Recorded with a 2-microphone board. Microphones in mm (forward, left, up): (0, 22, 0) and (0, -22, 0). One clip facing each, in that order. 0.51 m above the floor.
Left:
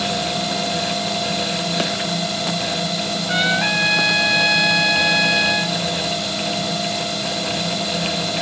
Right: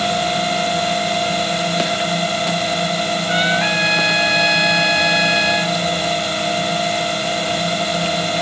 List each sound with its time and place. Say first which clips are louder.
0.0 s a drone: right 4 dB; 40° right (ahead or behind)
3.3 s a trumpet: right 1 dB; 5° right (ahead or behind)